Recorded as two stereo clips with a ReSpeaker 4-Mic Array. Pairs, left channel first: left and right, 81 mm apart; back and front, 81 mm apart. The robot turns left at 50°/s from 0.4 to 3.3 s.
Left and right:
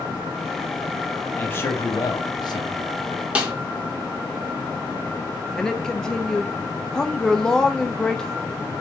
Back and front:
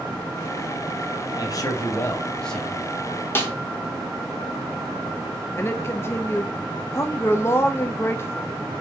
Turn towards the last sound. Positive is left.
turn(degrees=165)